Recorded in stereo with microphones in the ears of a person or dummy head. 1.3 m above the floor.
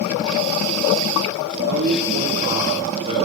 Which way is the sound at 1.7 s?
50° right (ahead or behind).